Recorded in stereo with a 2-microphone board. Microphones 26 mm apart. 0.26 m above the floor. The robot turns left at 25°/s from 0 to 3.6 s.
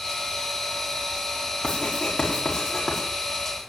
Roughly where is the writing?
Left.